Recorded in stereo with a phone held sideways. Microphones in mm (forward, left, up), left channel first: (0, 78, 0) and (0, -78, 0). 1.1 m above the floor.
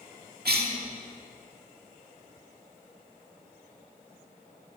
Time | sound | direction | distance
0.5 | a cough | 85° right | 1.9 m